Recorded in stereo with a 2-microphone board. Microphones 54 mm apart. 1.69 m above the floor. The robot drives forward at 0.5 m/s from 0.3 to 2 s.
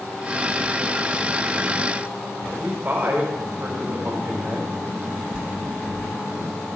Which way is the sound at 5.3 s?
20° right (ahead or behind).